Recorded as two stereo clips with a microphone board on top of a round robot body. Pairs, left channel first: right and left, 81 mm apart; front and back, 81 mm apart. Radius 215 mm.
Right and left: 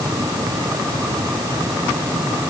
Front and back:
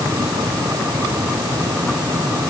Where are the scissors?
No scissors in this recording.